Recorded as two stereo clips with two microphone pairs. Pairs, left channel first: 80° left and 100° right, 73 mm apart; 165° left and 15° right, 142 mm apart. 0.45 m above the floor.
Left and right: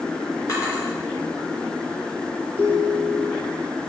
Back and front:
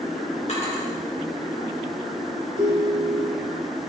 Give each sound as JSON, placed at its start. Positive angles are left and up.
{"t": 0.5, "sound": "a drawer", "azimuth_deg": 125, "distance_m": 3.5}
{"t": 2.6, "sound": "a ringtone", "azimuth_deg": -25, "distance_m": 2.5}